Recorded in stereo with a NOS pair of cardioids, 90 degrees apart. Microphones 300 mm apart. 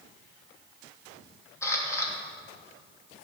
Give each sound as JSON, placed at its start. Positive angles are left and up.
{"t": 1.6, "sound": "a camera shutter", "azimuth_deg": 10, "distance_m": 2.5}